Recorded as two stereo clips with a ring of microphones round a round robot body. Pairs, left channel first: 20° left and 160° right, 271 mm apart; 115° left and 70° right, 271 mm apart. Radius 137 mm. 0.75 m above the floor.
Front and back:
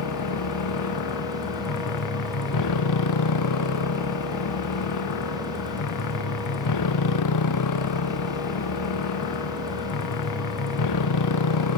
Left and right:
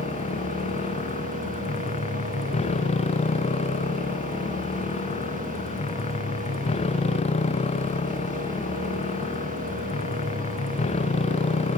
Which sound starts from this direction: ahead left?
A motorcycle, at 0.0 s.